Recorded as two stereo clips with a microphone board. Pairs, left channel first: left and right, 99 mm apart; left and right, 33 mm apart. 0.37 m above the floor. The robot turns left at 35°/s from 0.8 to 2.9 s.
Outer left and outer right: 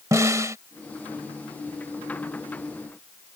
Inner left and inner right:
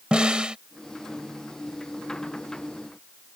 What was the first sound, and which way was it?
A snare drum, 35° right (ahead or behind).